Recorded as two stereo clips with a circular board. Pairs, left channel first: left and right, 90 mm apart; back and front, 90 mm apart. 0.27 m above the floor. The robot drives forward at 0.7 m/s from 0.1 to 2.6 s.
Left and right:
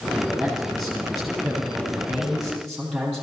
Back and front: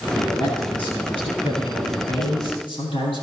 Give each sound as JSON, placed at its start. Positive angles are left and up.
{"t": 0.1, "sound": "a man speaking", "azimuth_deg": 175, "distance_m": 7.5}